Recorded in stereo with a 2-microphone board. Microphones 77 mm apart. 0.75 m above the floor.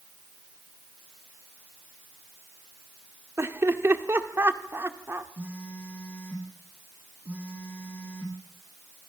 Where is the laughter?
35° right (ahead or behind), 1.8 m.